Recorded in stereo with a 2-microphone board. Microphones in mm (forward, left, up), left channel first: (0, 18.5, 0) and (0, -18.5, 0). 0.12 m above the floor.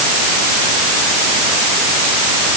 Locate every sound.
Only background noise.